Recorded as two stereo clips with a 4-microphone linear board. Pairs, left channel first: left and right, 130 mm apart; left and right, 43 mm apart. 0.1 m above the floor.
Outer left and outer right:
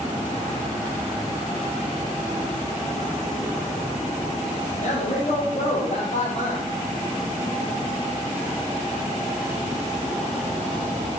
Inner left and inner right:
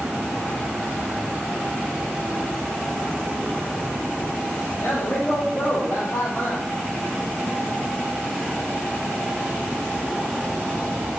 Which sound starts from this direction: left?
A man speaking, at 4.8 s.